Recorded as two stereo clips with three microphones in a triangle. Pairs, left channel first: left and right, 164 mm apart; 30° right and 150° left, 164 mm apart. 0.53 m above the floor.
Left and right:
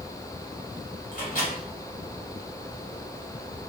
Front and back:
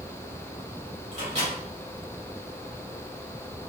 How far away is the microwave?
About 2 m.